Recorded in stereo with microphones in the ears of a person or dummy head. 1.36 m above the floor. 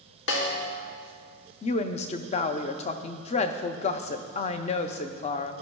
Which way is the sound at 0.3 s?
75° left (ahead or behind).